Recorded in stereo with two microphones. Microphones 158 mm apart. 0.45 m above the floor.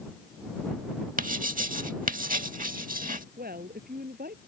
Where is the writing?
65° right (ahead or behind).